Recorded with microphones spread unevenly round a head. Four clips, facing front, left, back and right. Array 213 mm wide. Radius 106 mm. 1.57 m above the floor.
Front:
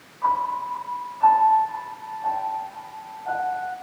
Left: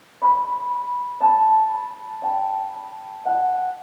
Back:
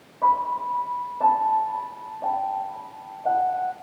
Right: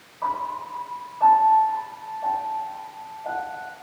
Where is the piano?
155° left, 7 m.